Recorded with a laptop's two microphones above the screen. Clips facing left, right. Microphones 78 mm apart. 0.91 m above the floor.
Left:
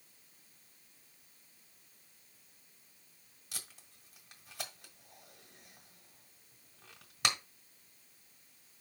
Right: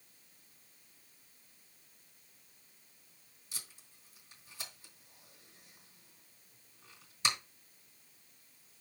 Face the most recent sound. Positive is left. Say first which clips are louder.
# left 2 dB
turn(degrees=70)  # may be behind; listen again after turning